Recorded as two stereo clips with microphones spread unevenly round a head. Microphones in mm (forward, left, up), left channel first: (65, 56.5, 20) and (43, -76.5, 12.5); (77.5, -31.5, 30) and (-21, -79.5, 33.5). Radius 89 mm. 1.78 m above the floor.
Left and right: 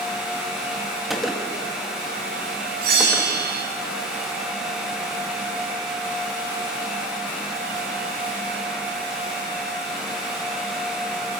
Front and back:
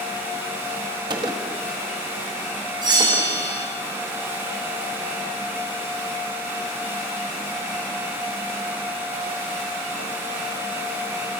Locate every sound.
1.1 s a gunshot: 170° left, 1.3 m
2.8 s a bell: 105° right, 7 m